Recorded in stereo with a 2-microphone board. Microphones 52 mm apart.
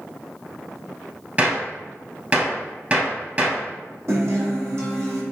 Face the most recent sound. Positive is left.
turn(degrees=-60)  # may be behind; listen again after turning